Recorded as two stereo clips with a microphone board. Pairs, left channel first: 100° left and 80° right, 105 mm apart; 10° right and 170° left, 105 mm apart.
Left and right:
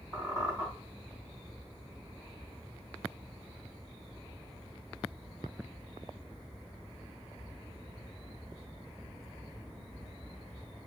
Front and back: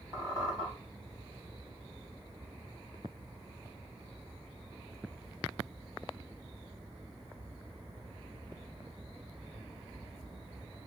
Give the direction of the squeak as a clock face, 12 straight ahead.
11 o'clock.